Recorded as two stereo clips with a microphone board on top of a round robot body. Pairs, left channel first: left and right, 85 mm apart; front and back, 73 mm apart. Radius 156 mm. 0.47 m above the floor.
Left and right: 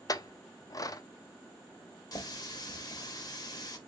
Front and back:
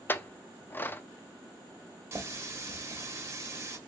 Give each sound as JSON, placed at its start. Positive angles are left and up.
{"t": 0.1, "sound": "a clink", "azimuth_deg": 55, "distance_m": 0.6}
{"t": 2.1, "sound": "a running tap", "azimuth_deg": 130, "distance_m": 1.0}